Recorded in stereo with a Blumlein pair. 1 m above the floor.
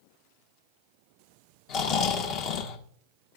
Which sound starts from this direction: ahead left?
Snoring, at 1.7 s.